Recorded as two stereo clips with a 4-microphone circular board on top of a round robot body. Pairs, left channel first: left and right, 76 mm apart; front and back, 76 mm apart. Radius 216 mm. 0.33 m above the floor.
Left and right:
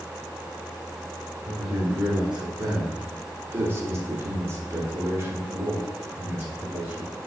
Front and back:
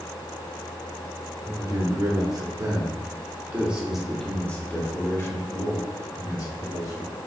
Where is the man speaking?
175° right, 1.8 m; by 7.1 s 25° right, 2 m.